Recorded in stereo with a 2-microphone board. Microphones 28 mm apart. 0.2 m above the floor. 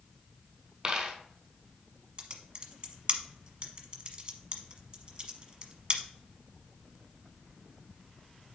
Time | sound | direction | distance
0.8 | a dropped coin | 25° right (ahead or behind) | 1.4 m
2.2 | typing on a keyboard | 35° right (ahead or behind) | 1.1 m